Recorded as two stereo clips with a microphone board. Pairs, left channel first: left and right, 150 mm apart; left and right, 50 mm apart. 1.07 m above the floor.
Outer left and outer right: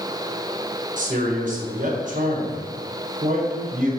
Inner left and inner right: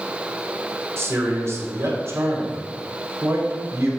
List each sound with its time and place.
1.0 s a man speaking: 55° right (ahead or behind), 1.1 m